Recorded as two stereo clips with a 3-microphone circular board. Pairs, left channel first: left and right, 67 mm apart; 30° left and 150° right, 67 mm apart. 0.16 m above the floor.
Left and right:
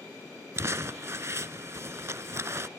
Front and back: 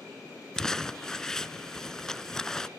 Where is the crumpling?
50° right, 0.5 m.